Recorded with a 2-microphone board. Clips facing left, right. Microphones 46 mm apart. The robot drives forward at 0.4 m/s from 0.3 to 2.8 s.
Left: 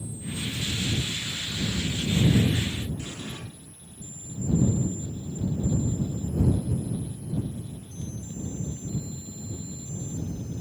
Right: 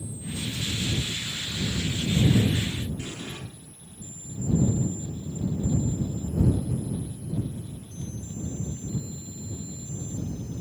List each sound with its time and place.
3.0 s an explosion: 40° right (ahead or behind), 2.5 m